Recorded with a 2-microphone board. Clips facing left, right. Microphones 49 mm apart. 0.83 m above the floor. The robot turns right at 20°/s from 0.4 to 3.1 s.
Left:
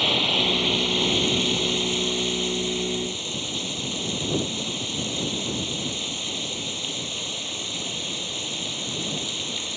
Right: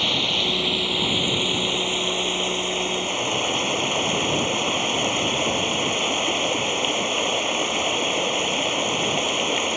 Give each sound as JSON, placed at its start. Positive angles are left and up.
{"t": 0.0, "sound": "running water", "azimuth_deg": 180}